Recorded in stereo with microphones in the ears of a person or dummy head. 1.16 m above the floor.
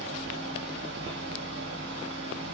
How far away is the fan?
About 1.7 m.